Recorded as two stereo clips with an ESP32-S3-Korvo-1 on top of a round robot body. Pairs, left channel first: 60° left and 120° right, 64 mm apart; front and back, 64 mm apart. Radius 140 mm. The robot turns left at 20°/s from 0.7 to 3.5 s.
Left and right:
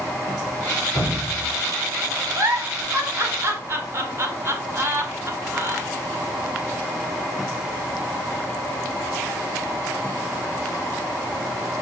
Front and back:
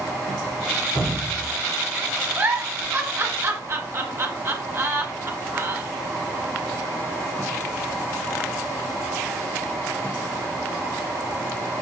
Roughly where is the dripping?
Ahead.